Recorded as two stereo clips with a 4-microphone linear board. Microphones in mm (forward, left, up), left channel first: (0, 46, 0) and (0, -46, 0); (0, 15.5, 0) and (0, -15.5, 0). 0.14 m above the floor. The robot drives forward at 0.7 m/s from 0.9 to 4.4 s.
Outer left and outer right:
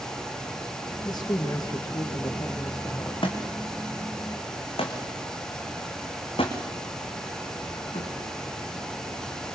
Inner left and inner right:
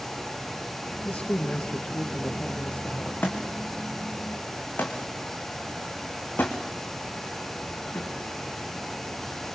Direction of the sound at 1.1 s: 50° left (ahead or behind).